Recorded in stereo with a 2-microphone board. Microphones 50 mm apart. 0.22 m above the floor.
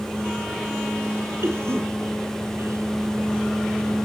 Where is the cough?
70° right (ahead or behind), 5.5 m.